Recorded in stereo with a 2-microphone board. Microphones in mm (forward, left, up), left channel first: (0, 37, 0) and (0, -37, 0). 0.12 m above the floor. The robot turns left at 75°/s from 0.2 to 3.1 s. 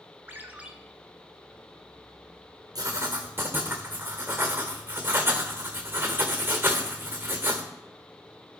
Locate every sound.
0.3 s a ringtone: 125° right, 1.0 m; by 0.7 s 155° right, 1.0 m
2.8 s writing: 55° right (ahead or behind), 1.6 m; by 7.6 s 30° right (ahead or behind), 1.6 m